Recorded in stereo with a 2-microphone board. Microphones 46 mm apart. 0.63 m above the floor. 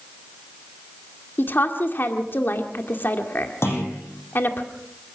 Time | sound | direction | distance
1.4 | a woman speaking | 55° left (ahead or behind) | 2 m
3.6 | a clunk | 70° left (ahead or behind) | 9 m